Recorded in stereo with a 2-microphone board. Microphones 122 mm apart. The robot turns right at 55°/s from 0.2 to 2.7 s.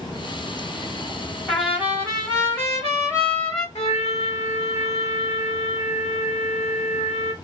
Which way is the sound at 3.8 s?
60° left (ahead or behind).